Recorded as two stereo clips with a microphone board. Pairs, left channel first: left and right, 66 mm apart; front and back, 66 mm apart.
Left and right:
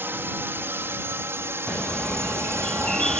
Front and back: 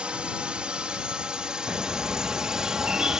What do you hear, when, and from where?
0.0 s a drone: 115° right; by 3.2 s 100° right
1.7 s a bird: 145° left